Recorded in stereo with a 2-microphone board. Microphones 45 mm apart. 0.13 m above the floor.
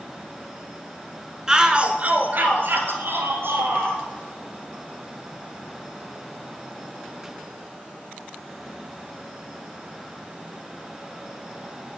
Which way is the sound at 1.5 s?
15° right (ahead or behind).